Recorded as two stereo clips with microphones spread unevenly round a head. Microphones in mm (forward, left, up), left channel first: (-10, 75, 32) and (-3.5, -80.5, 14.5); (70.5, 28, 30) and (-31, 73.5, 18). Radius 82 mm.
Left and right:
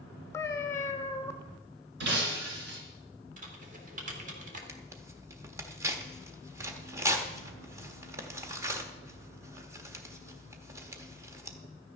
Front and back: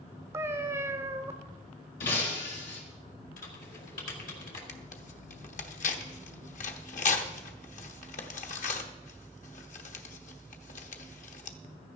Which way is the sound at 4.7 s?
15° right.